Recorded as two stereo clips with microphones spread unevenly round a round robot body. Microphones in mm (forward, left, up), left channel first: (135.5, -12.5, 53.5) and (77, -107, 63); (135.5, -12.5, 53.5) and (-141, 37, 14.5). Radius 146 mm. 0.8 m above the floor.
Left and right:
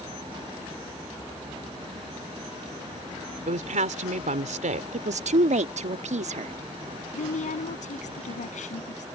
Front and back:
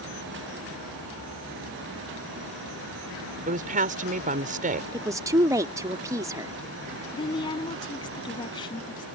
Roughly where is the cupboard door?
No cupboard door in this recording.